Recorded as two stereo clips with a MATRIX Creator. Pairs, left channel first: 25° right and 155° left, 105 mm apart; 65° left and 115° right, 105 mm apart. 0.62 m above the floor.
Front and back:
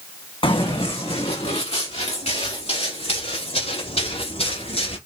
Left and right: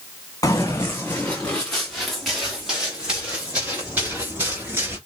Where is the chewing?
No chewing in this recording.